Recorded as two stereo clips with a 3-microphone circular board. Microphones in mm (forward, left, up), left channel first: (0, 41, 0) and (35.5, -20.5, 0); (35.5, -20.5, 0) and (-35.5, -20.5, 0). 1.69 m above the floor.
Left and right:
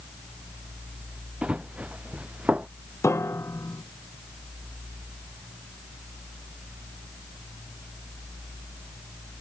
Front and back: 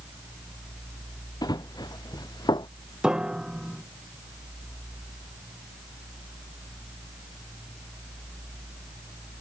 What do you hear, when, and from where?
1.4 s running footsteps: 15° left; by 2.7 s 10° left
3.0 s a piano: 110° left